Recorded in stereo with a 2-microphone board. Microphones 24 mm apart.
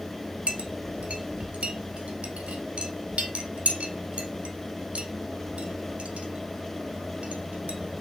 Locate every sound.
0.5 s a clink: 60° right (ahead or behind), 1.3 m